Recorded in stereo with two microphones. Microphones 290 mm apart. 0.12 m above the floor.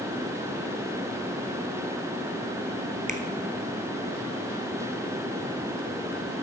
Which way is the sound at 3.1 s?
30° right (ahead or behind).